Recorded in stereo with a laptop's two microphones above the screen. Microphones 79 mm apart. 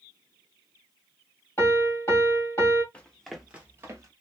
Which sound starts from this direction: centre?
Running footsteps, at 2.9 s.